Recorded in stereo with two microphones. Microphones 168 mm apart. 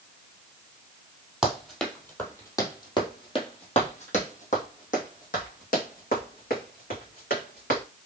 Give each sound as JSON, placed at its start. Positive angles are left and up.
{"t": 1.4, "sound": "running footsteps", "side_deg": 0, "distance_m": 1.9}